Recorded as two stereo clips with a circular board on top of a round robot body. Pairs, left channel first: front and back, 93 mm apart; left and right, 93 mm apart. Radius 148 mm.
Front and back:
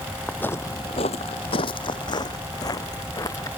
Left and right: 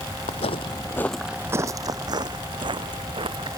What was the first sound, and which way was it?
Footsteps, 75° left.